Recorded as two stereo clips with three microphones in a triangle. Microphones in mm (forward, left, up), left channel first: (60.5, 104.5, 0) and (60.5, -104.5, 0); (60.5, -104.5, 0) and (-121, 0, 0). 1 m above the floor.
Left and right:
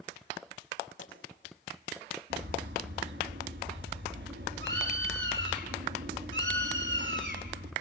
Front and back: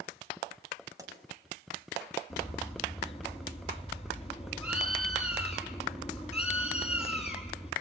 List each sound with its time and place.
1.0 s a pop: 75° left, 5 m
2.3 s a bird: 90° right, 4.5 m